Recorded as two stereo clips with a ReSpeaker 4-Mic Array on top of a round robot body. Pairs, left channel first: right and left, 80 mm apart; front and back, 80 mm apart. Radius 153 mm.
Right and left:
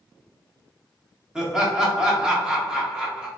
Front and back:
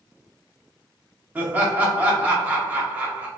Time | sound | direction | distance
1.4 | laughter | 155° left | 1.1 m